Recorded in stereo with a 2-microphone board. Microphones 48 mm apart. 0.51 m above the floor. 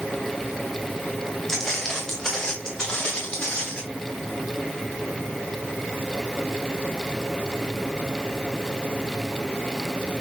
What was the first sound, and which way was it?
Footsteps, 10° left (ahead or behind).